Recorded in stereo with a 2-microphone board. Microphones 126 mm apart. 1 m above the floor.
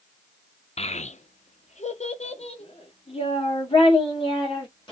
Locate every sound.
0.8 s a child speaking: 55° left (ahead or behind), 0.5 m; by 4.9 s 40° left (ahead or behind), 2.5 m